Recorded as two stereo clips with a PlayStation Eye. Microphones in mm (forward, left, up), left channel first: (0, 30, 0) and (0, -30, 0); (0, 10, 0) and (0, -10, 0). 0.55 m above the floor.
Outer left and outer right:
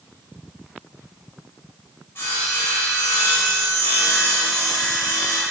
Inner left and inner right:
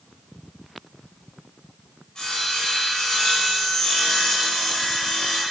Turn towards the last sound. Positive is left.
turn(degrees=40)  # may be behind; listen again after turning